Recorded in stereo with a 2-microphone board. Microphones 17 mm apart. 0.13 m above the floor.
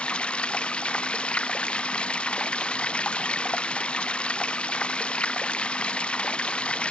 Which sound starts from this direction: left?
Running water, at 0.0 s.